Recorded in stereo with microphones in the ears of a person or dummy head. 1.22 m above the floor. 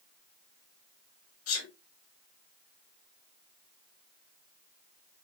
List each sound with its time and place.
1.5 s a sneeze: 75° left (ahead or behind), 2.5 m